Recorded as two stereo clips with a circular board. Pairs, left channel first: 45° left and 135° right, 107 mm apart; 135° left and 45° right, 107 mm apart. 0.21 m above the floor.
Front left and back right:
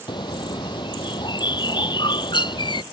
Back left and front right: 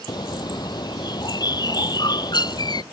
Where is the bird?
85° left.